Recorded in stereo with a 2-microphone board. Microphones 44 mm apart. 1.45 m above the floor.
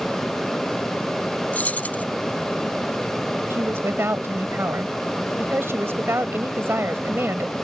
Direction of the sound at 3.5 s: 65° right (ahead or behind).